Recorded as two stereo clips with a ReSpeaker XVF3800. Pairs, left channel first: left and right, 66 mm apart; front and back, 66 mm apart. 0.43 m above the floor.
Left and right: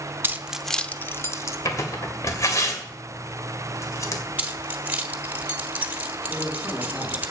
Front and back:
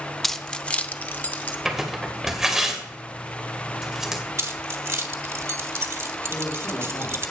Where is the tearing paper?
95° left, 2 m.